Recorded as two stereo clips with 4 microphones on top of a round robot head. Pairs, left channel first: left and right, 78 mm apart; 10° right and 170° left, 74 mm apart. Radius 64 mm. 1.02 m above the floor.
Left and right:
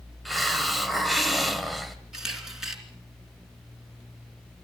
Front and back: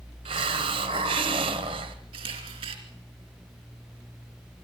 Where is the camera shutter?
175° right, 3 m.